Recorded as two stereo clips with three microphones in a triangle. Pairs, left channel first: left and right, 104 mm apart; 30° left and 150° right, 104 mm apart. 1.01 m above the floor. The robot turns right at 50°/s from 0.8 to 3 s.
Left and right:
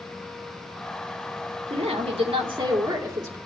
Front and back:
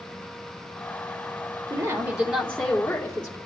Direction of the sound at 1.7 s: 115° right.